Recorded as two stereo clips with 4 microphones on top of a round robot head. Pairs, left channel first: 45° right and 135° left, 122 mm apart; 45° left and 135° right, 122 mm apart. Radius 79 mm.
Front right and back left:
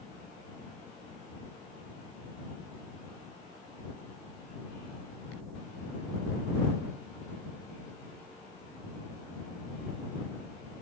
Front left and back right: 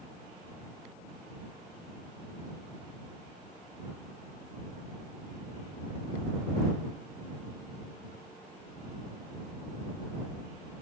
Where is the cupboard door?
I don't hear a cupboard door.